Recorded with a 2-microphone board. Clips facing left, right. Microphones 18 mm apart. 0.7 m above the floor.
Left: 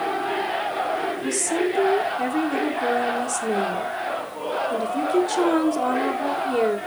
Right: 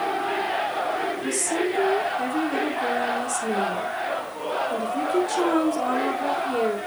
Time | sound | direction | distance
1.2 | a woman speaking | 10° left (ahead or behind) | 2.5 m